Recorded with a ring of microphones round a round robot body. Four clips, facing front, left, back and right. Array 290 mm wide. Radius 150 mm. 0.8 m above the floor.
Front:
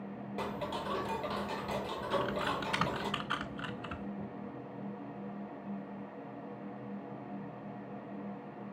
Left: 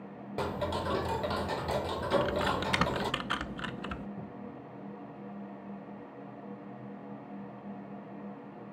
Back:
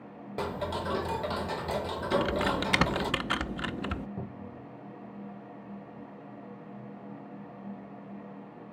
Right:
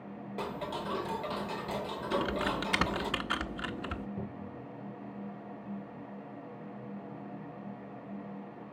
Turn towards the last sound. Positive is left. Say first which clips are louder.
# right 2 dB, back 1 dB
turn(degrees=-155)